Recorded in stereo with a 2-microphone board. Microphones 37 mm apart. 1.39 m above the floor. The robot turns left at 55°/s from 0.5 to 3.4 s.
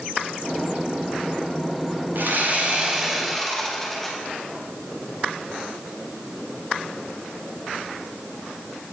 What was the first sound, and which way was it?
Sawing, 115° right.